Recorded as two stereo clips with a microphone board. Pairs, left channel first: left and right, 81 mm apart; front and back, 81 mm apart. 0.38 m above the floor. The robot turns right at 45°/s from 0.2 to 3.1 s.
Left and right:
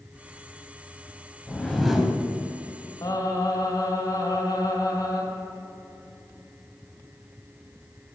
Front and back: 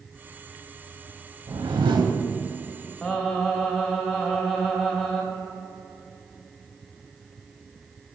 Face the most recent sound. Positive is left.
turn(degrees=85)